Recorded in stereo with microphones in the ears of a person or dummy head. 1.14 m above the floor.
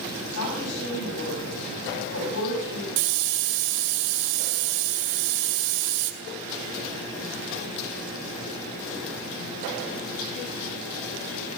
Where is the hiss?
75° right (ahead or behind), 2 m.